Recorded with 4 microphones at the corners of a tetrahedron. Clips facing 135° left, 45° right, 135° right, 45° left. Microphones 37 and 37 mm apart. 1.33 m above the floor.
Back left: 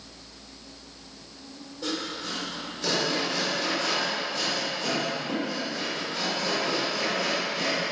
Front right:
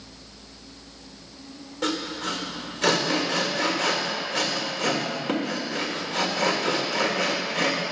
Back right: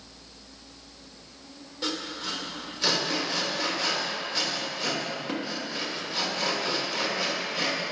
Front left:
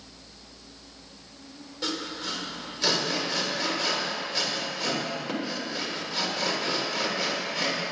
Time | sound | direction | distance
1.8 | sawing | 50° right | 1.5 m